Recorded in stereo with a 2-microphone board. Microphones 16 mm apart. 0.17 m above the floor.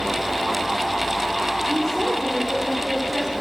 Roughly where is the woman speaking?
Centre.